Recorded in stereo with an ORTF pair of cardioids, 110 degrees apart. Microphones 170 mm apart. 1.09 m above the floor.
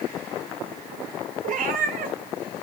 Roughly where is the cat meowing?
Ahead right.